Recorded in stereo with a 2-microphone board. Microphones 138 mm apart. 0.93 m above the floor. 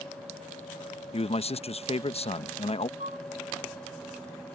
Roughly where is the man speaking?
Left.